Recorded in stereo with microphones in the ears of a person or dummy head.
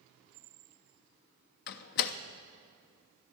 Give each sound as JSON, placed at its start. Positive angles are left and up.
{"t": 1.7, "sound": "a door slam", "side_deg": 60, "distance_m": 0.6}